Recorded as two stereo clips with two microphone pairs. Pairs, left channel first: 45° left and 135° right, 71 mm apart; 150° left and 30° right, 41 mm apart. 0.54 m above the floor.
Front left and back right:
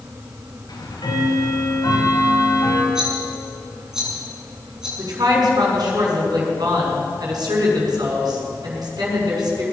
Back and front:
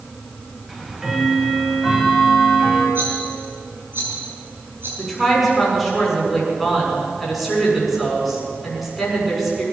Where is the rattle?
50° right, 6 m.